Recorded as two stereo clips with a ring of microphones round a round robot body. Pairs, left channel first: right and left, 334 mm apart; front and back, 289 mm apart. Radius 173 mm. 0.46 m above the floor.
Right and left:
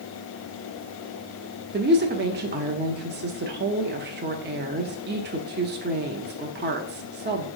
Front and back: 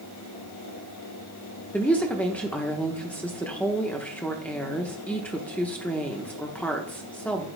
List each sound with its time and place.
1.7 s a woman speaking: 80° left, 0.8 m